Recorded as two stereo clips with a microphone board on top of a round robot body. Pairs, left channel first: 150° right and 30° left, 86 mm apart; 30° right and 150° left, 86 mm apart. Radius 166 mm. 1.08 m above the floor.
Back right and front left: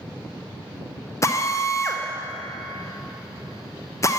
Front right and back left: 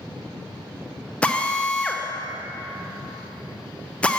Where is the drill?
105° right, 0.8 m.